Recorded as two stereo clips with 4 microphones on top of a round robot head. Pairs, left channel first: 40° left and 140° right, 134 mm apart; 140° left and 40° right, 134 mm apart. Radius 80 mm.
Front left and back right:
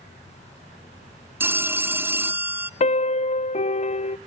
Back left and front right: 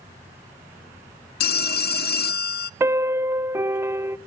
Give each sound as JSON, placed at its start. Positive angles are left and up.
{"t": 1.4, "sound": "a phone ringing", "azimuth_deg": 145, "distance_m": 0.6}
{"t": 2.8, "sound": "a piano", "azimuth_deg": 25, "distance_m": 0.6}